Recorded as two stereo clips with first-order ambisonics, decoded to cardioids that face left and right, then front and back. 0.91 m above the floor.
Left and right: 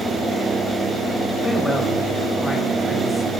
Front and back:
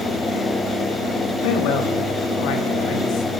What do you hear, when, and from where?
1.4 s a man speaking: 5° left, 1.2 m